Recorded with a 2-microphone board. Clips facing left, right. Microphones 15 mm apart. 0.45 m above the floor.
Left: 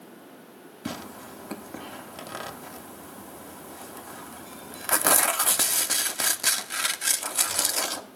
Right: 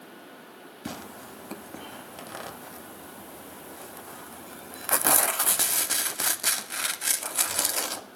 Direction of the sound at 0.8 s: 10° left (ahead or behind).